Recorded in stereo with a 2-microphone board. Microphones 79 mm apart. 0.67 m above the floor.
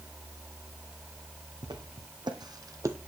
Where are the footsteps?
70° right (ahead or behind), 1.9 m; by 3.0 s 35° right (ahead or behind), 0.8 m.